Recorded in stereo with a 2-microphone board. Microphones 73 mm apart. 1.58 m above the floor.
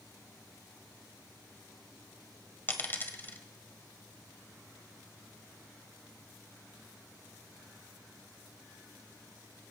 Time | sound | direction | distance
2.7 | a dropped coin | 30° left (ahead or behind) | 1.5 m